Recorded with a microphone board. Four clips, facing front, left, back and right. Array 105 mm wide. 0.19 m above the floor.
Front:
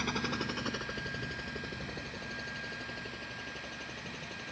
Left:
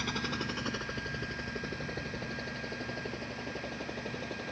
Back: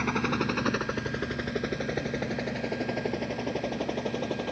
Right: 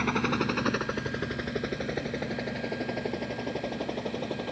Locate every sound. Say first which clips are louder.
0.0 s a helicopter: right 9 dB, back 7 dB; 125° right; by 4.5 s 155° right